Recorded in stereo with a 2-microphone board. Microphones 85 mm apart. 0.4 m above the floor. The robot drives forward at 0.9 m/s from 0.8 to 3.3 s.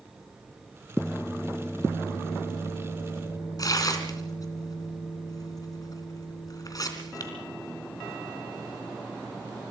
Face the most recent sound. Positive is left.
turn(degrees=45)  # may be behind; listen again after turning